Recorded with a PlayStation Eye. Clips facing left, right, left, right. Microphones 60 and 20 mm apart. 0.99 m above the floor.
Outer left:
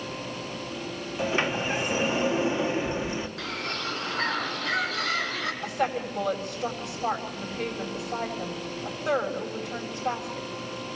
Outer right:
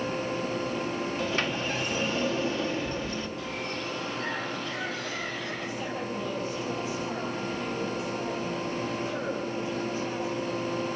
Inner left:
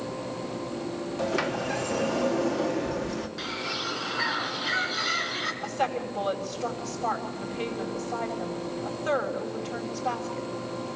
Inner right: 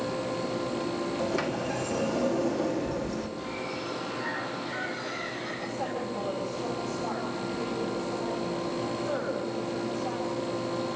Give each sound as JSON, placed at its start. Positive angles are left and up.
{"t": 1.2, "sound": "a sliding door", "side_deg": 20, "distance_m": 1.5}
{"t": 3.4, "sound": "a bird", "side_deg": 75, "distance_m": 2.5}
{"t": 5.6, "sound": "a woman speaking", "side_deg": 65, "distance_m": 5.5}